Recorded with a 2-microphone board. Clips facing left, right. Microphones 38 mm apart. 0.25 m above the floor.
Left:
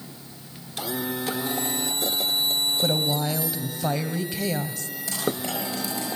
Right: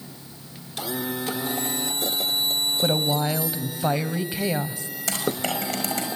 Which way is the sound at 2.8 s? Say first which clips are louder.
Right 4 dB; 20° right (ahead or behind).